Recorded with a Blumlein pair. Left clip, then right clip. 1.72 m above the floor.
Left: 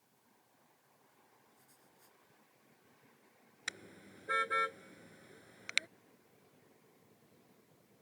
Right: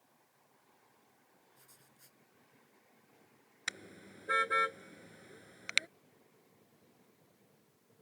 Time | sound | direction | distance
1.6 | writing | 20° right | ?
3.7 | a car horn | 10° right | ?